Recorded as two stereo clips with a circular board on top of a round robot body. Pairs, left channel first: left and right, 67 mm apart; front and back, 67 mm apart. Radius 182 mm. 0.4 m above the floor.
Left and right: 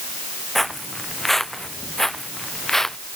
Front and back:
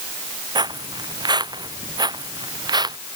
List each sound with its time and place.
0.6 s footsteps: straight behind; by 3.0 s 175° left